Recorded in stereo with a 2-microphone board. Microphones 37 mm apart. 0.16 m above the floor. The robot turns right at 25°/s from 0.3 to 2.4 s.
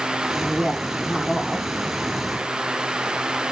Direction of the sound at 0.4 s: 15° right (ahead or behind).